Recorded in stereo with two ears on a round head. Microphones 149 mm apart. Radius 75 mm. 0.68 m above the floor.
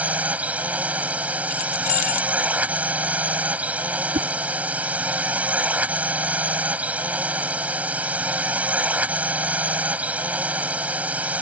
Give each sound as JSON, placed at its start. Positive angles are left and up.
{"t": 0.0, "sound": "a drone", "side_deg": -10}
{"t": 1.5, "sound": "keys jangling", "side_deg": 45}
{"t": 4.1, "sound": "a whoosh", "side_deg": -35}